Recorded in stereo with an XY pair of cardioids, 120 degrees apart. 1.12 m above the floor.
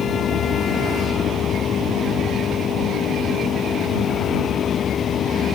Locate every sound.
0.0 s a machine running: 50° left